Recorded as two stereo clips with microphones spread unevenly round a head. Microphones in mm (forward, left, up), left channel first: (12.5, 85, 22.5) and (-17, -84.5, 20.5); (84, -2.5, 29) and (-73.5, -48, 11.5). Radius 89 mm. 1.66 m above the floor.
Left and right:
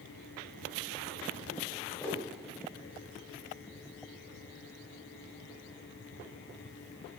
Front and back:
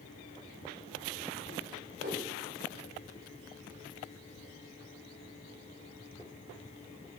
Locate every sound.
2.0 s a whoosh: 155° left, 3.5 m